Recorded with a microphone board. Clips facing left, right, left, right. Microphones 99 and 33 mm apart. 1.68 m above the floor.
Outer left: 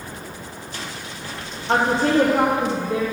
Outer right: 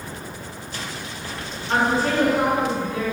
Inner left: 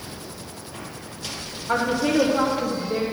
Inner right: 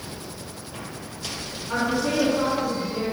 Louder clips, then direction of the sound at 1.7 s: Outer left 2 dB, inner left 3 dB; 65° left (ahead or behind).